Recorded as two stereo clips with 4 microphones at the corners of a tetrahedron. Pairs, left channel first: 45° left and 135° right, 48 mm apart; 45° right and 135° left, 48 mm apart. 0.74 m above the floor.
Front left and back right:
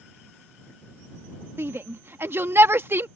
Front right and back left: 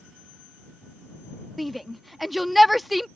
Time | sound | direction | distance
1.6 | a shout | 135° right | ?